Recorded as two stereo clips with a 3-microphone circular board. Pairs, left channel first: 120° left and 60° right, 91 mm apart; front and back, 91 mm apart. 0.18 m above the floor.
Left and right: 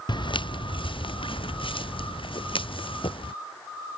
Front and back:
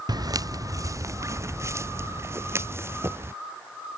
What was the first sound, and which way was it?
Footsteps, 145° left.